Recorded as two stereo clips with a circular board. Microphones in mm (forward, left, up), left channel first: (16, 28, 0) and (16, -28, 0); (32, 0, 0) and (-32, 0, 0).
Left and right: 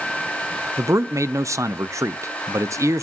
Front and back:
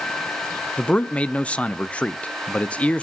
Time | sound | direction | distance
0.8 | a man speaking | 70° right | 0.7 m